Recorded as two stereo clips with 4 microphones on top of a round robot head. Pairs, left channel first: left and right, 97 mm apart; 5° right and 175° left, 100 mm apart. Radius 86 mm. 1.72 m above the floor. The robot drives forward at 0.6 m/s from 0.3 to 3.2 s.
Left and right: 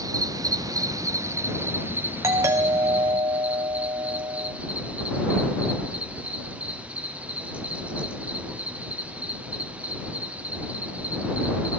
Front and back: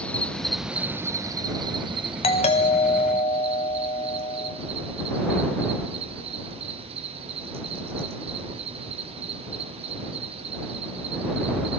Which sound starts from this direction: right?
An insect, at 0.0 s.